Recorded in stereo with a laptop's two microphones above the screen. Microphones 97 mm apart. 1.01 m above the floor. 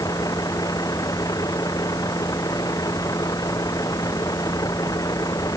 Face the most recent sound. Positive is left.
turn(degrees=35)  # may be behind; listen again after turning